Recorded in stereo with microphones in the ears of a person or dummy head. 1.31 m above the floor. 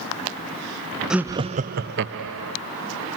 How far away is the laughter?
About 0.5 m.